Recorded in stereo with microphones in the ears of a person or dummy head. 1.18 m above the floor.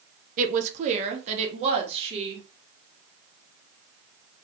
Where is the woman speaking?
45° right (ahead or behind), 0.6 m; by 2.5 s 35° right (ahead or behind), 1.6 m.